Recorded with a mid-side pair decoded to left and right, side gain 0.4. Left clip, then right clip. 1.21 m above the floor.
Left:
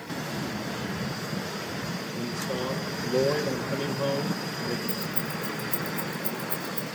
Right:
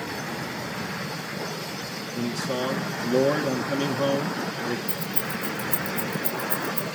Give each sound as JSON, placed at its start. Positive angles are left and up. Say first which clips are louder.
{"t": 2.1, "sound": "a man speaking", "louder": "right 5 dB", "azimuth_deg": -50, "distance_m": 2.0}
{"t": 4.9, "sound": "keys jangling", "louder": "right 2 dB", "azimuth_deg": -50, "distance_m": 8.0}